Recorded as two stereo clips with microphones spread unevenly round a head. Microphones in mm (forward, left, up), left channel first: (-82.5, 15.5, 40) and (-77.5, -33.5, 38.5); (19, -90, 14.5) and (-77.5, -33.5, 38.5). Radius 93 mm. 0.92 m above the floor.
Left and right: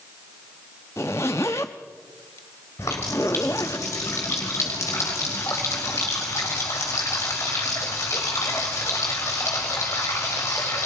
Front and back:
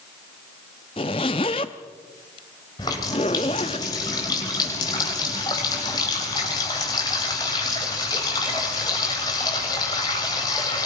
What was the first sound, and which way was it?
A zipper, 30° left.